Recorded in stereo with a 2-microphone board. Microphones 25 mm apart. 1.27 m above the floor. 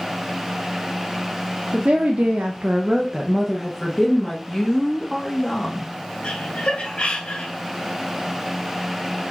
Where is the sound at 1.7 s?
65° right (ahead or behind), 1.3 m; by 4.4 s 15° left (ahead or behind), 2 m.